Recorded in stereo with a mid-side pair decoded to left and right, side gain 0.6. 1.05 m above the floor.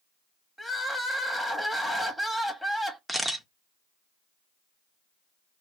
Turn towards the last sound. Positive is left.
turn(degrees=-5)